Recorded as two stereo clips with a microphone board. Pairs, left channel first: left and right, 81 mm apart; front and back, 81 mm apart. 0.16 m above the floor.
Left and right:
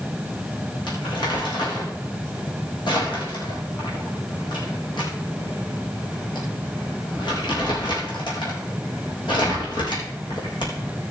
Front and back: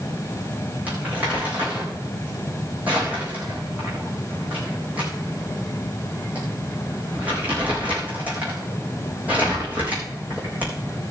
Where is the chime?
No chime in this recording.